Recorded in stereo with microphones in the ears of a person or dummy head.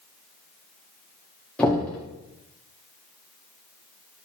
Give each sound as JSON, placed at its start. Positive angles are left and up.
{"t": 1.6, "sound": "knocking", "side_deg": 10, "distance_m": 1.5}